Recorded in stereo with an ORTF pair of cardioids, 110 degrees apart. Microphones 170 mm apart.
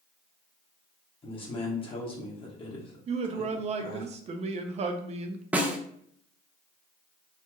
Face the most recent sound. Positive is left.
turn(degrees=-10)